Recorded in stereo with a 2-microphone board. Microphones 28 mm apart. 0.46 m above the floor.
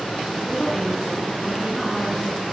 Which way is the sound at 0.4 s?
10° left (ahead or behind).